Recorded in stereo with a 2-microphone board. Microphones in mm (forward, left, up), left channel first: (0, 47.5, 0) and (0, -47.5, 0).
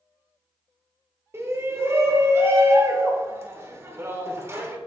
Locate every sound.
1.3 s a shout: 30° right (ahead or behind), 1.6 m